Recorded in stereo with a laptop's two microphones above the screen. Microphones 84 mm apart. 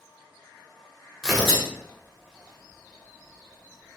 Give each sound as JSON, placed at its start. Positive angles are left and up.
{"t": 1.2, "sound": "tearing paper", "side_deg": 5, "distance_m": 1.2}